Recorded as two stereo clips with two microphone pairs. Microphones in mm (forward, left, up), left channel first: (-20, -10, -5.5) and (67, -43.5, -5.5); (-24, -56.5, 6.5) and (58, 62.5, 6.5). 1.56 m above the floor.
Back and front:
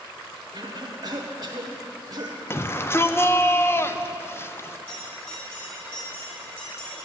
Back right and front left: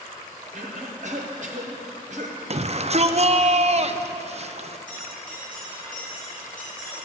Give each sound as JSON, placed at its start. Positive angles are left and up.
{"t": 0.5, "sound": "a cough", "azimuth_deg": 20, "distance_m": 1.1}
{"t": 2.5, "sound": "a shout", "azimuth_deg": 95, "distance_m": 0.6}
{"t": 4.9, "sound": "a bell", "azimuth_deg": 155, "distance_m": 3.5}